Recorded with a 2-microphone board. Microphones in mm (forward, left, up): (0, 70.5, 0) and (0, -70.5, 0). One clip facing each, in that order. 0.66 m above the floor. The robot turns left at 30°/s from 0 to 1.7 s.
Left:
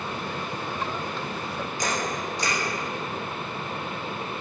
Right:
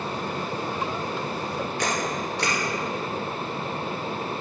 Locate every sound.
1.8 s a camera shutter: 75° right (ahead or behind), 2.5 m